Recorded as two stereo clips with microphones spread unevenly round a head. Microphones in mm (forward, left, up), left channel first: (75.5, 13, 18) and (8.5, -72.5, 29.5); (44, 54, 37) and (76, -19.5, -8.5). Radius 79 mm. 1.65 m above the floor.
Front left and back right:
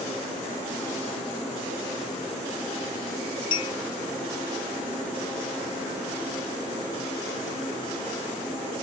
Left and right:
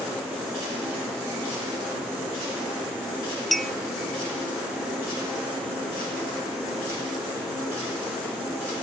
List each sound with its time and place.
3.5 s a clink: 80° left, 0.6 m